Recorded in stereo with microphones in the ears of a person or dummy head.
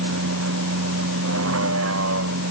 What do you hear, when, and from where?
0.0 s a vehicle: 90° right